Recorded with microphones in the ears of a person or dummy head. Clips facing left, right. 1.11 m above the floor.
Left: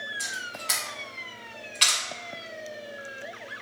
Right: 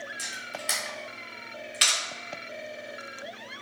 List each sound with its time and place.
0.2 s a camera shutter: 15° right (ahead or behind), 1.2 m